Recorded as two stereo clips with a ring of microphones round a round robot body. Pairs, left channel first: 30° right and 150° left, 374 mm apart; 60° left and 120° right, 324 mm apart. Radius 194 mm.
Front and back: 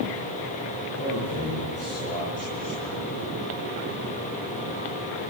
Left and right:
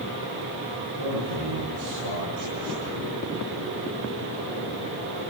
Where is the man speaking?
105° right, 9.5 m; by 3.2 s 95° right, 9 m.